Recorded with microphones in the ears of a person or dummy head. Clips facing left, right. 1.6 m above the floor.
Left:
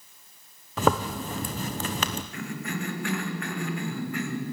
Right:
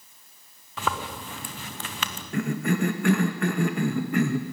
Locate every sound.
0.8 s a zipper: 30° left (ahead or behind), 0.9 m
2.3 s a cough: 50° right (ahead or behind), 2 m